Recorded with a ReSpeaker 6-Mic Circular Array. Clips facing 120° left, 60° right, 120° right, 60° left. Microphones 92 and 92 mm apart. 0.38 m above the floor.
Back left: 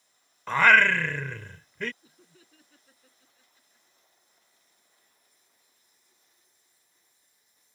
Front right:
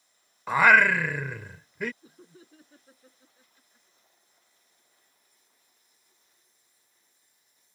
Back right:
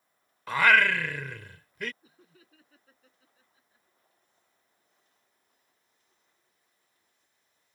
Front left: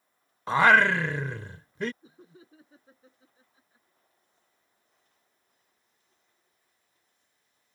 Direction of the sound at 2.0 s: 5° right.